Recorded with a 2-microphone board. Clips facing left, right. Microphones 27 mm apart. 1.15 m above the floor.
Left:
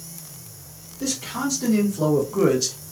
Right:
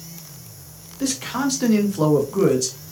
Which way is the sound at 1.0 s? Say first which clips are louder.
Right 3 dB; 75° right (ahead or behind).